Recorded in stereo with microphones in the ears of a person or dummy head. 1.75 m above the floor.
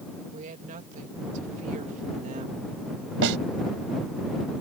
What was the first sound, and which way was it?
A woman speaking, 40° right (ahead or behind).